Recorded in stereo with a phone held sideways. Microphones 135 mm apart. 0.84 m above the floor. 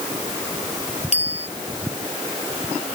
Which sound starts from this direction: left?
A bicycle bell, at 1.1 s.